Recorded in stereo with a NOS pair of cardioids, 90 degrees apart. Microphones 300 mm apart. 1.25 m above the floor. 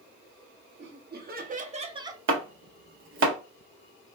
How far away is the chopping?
About 0.9 m.